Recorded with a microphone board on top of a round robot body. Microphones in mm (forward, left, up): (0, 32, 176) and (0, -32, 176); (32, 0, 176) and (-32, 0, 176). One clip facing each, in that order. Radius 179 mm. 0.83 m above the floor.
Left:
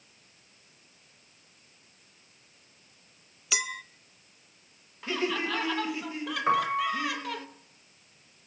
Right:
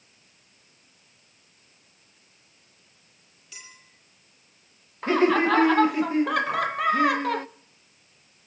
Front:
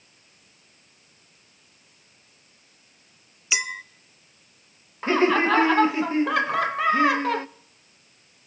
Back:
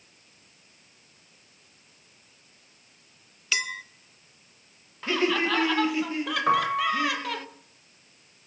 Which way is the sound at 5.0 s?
50° right.